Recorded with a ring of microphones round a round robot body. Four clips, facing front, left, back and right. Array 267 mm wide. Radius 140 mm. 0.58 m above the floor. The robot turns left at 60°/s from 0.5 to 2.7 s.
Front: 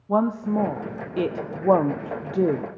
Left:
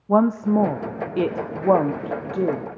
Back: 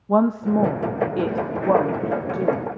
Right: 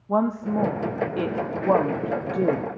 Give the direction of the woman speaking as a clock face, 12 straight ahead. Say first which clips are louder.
Left 5 dB, back 3 dB; 8 o'clock.